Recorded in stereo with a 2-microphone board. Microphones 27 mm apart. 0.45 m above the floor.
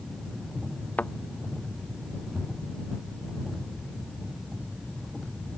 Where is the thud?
75° left (ahead or behind).